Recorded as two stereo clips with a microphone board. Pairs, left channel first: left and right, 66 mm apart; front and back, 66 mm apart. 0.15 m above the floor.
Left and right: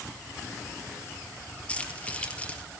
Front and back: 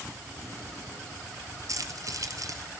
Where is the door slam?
No door slam in this recording.